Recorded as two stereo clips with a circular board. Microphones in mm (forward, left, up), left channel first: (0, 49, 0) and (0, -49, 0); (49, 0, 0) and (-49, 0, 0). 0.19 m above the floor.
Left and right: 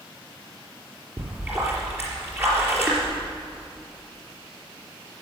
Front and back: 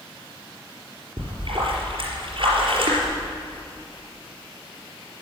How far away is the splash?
About 4.5 m.